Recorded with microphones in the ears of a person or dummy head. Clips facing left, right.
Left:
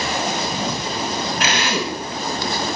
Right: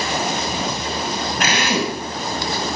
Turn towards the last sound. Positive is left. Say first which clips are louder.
# right 4 dB
turn(degrees=-40)  # may be behind; listen again after turning